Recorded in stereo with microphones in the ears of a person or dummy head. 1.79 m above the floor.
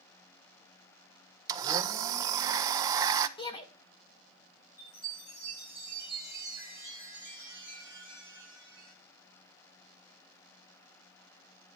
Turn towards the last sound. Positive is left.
turn(degrees=60)  # may be behind; listen again after turning